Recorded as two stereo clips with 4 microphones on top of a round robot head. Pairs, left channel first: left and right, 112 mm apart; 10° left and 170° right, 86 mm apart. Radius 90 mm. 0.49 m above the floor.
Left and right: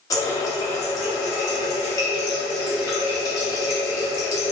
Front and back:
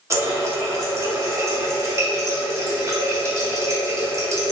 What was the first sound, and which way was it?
A running tap, 145° left.